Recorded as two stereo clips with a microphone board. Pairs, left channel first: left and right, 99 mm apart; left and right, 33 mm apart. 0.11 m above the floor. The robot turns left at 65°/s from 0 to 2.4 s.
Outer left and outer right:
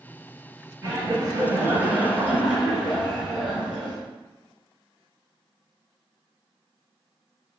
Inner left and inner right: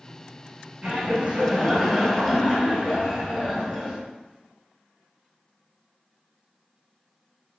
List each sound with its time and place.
0.8 s laughter: 20° right (ahead or behind), 1.2 m; by 4.0 s 10° right (ahead or behind), 1.2 m